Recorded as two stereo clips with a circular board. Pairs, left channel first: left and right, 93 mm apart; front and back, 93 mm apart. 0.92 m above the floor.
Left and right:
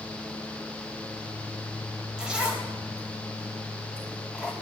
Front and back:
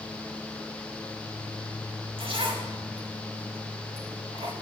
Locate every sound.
2.2 s a zipper: 170° right, 3.5 m